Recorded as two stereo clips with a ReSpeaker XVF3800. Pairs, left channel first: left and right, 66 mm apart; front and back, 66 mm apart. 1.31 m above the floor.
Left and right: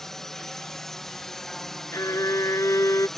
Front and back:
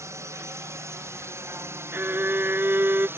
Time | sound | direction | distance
0.0 | a drone | 170° left | ?
1.9 | a violin | 125° left | ?